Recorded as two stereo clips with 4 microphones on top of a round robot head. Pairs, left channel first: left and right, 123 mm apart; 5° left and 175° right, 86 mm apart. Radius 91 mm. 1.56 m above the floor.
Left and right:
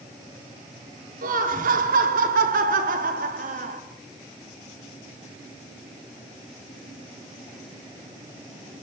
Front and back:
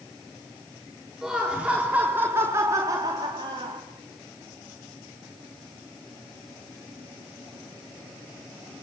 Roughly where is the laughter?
Right.